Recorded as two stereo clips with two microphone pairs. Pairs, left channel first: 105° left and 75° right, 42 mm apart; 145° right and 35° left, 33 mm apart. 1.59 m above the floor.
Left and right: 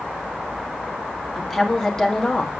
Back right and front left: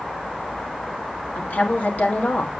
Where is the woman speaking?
170° right, 3 m; by 2.5 s 175° left, 3 m.